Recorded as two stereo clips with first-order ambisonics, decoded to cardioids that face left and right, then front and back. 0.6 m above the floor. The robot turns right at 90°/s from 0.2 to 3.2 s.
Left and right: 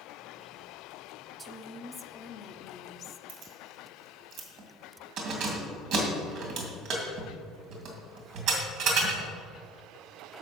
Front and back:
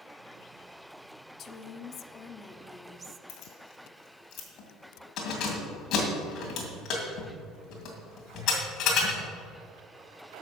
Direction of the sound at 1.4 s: 30° right.